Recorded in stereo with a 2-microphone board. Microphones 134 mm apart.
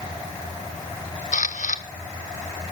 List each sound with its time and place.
1.3 s a camera shutter: 70° left (ahead or behind), 1.0 m